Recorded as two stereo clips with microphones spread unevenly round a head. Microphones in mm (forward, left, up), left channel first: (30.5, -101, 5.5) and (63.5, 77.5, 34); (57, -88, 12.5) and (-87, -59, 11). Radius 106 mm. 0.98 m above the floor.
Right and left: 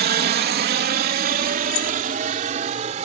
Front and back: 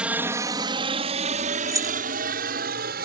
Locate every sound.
0.0 s a helicopter: 90° left; by 3.1 s 140° left
1.7 s keys jangling: 120° right